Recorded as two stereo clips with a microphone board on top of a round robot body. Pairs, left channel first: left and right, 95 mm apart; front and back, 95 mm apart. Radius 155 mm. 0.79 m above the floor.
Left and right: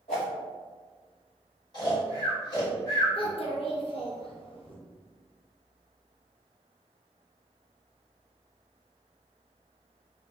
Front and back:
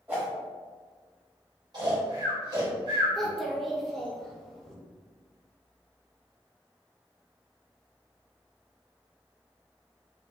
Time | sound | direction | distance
0.1 | a whoosh | 110° left | 0.7 m
1.7 | snoring | 135° left | 1.8 m
3.1 | a child speaking | 85° left | 1.1 m